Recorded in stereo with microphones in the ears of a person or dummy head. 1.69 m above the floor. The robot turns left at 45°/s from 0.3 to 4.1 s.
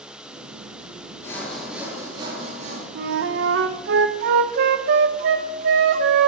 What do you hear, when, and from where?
1.2 s sawing: 20° left, 2.5 m; by 2.9 s 55° right, 2.5 m
3.0 s a flute: 60° right, 0.7 m; by 6.3 s 115° right, 0.7 m